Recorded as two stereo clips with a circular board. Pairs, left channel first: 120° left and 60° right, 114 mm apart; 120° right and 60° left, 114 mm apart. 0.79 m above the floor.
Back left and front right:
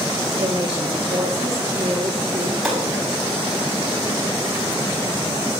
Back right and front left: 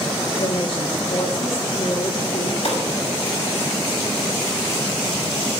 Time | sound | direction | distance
0.4 | a woman speaking | 105° right | 1.5 m
2.6 | a gunshot | 150° right | 6.5 m